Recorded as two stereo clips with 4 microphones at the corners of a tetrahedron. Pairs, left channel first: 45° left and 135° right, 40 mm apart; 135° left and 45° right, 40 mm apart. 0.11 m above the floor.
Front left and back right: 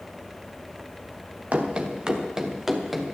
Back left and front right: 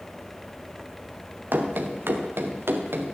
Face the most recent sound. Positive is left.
turn(degrees=-45)